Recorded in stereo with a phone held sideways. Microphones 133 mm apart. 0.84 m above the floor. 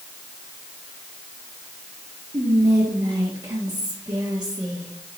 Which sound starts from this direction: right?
Whispering, at 2.3 s.